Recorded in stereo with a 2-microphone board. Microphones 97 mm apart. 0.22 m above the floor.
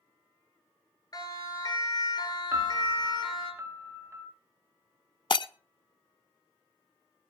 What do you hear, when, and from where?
1.1 s a siren: 40° left (ahead or behind), 4 m; by 3.5 s 55° left (ahead or behind), 4.5 m
2.5 s a piano: 35° right (ahead or behind), 1.8 m
5.3 s breaking glass: 55° left (ahead or behind), 0.6 m